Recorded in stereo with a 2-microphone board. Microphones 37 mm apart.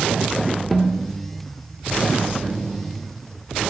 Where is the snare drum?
5° left (ahead or behind), 1.1 m.